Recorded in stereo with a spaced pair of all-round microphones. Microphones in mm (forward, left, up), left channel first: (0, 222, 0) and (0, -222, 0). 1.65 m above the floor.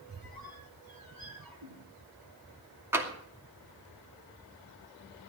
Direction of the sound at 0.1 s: 50° right (ahead or behind).